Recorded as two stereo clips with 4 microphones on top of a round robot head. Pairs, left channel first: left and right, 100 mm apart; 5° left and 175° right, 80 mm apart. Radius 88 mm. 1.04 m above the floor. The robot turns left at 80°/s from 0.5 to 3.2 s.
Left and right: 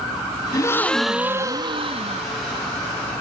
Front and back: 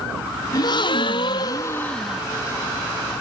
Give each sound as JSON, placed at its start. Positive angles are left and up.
{"t": 0.5, "sound": "a gasp", "azimuth_deg": 40}